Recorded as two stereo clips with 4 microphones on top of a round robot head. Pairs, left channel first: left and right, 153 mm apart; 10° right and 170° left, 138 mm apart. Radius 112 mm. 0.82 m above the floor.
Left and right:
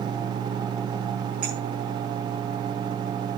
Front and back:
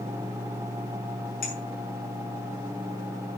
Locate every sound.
1.4 s a clink: 5° right, 5 m